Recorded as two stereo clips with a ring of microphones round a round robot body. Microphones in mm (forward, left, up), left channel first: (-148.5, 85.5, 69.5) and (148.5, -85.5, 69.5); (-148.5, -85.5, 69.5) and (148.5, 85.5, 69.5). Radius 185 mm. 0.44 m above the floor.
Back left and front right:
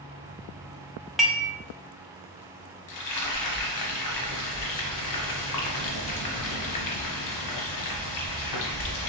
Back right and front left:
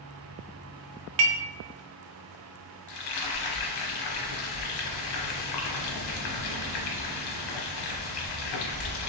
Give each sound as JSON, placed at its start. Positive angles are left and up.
{"t": 1.2, "sound": "dishes clattering", "azimuth_deg": 60, "distance_m": 0.6}
{"t": 2.9, "sound": "frying", "azimuth_deg": -175, "distance_m": 0.8}